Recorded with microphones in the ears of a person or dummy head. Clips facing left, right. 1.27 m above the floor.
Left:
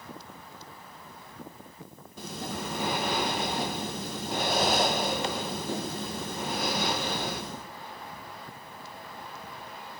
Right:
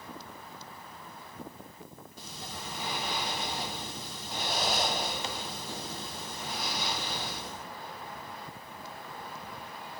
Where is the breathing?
50° left (ahead or behind), 0.6 m.